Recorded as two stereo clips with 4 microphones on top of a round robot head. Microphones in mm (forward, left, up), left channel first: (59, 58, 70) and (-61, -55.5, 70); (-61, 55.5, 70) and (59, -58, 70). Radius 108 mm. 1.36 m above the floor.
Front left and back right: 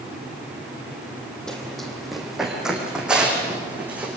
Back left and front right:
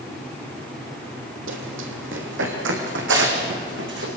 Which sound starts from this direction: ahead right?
Running footsteps, at 1.5 s.